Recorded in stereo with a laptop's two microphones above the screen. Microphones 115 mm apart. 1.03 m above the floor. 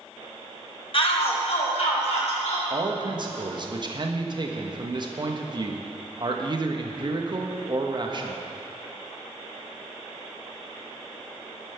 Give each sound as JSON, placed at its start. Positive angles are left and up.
{"t": 0.9, "sound": "a shout", "side_deg": 50, "distance_m": 1.1}
{"t": 2.7, "sound": "a man speaking", "side_deg": -40, "distance_m": 1.0}